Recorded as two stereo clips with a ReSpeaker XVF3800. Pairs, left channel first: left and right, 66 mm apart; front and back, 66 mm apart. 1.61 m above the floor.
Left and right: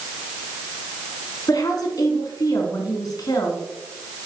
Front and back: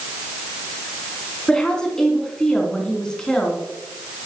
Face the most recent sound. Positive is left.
turn(degrees=75)